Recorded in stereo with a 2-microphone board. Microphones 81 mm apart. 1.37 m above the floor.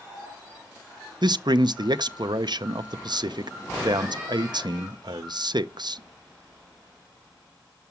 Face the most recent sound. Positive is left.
turn(degrees=-65)  # may be behind; listen again after turning